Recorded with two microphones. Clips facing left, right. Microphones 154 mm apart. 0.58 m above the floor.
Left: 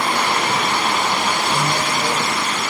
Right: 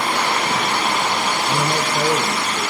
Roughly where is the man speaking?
Right.